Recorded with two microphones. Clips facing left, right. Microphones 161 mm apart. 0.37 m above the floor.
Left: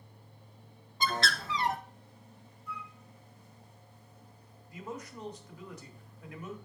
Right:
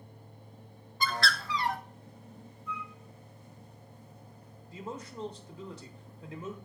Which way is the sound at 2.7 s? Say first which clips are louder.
Right 3 dB; 10° left (ahead or behind).